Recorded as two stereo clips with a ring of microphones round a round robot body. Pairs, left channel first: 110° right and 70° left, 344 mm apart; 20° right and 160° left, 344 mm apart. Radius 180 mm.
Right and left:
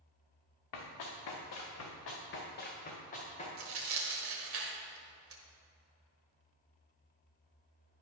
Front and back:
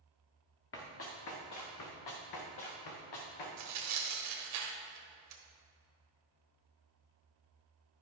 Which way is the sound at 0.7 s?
80° right.